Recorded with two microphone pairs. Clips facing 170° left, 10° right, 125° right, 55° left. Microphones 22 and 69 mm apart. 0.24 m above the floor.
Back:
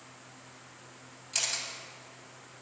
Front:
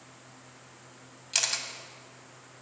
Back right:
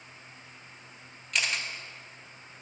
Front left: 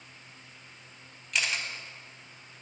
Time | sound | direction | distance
1.3 | a camera shutter | 35° right | 0.6 m